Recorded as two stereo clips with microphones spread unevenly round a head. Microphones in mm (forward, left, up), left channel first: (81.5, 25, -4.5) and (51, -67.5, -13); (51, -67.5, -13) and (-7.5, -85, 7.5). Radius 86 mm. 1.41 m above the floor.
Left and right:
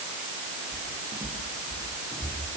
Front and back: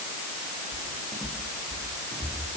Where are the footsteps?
160° left, 8 m; by 2.6 s 165° left, 9 m.